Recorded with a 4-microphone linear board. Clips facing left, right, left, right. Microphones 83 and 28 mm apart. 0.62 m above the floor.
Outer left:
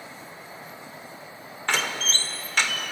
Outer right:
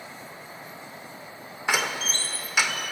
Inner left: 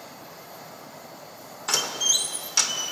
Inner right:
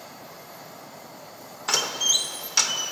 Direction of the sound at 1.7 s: 10° right (ahead or behind).